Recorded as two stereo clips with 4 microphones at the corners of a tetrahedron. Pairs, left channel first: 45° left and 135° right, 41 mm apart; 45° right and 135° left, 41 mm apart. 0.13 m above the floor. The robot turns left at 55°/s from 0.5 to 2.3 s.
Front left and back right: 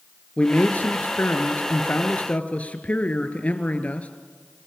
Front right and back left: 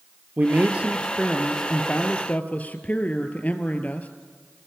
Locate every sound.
0.4 s a man speaking: 95° left, 1.8 m; by 4.1 s straight ahead, 1.8 m